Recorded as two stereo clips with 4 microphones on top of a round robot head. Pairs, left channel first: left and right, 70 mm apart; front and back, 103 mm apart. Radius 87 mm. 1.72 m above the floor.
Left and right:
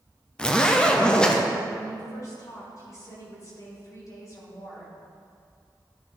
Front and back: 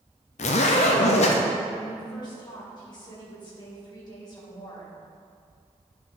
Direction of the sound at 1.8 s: 50° left.